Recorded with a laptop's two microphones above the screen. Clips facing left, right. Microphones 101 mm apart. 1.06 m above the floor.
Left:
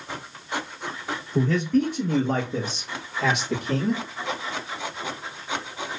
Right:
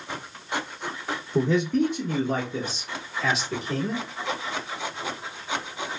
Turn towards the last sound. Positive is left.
turn(degrees=70)  # may be behind; listen again after turning